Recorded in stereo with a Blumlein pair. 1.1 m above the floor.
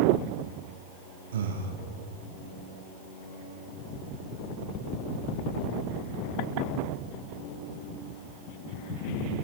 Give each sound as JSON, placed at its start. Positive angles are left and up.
{"t": 1.3, "sound": "breathing", "azimuth_deg": -65, "distance_m": 0.9}